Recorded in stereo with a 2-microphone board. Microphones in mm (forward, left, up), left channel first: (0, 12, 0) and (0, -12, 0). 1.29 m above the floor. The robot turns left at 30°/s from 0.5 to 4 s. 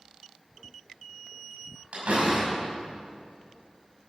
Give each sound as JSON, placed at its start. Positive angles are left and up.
{"t": 1.9, "sound": "a door slam", "side_deg": -75, "distance_m": 5.5}